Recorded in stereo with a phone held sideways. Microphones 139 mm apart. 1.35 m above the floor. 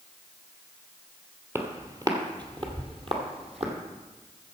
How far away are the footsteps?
About 1.4 m.